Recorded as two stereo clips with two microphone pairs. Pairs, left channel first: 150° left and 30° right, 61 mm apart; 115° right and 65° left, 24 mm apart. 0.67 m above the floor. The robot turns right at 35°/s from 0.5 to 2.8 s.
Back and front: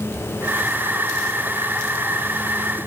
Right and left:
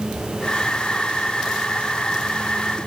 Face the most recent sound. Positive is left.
No sound to turn to.